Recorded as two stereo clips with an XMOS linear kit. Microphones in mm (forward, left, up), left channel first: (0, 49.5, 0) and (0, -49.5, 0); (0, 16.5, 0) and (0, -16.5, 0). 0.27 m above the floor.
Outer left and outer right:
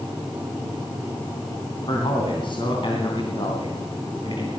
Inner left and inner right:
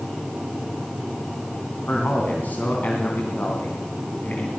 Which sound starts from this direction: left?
A man speaking, at 1.9 s.